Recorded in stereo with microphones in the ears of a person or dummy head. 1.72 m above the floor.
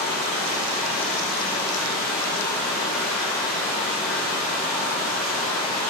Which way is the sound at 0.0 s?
5° right (ahead or behind).